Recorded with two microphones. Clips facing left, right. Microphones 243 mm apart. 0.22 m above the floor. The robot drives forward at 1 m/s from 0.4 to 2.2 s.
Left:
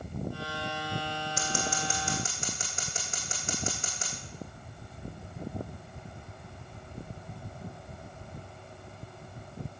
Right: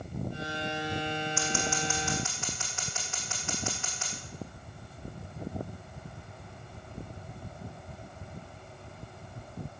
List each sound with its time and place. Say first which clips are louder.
1.4 s scissors: right 2 dB; 45° left (ahead or behind), 4 m; by 4.1 s 40° left (ahead or behind), 4.5 m